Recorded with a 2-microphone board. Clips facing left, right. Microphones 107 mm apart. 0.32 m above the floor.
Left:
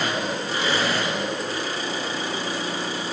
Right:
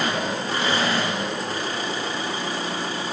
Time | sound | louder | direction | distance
0.0 | an engine running | right 1 dB | 50° right (ahead or behind) | 2.5 m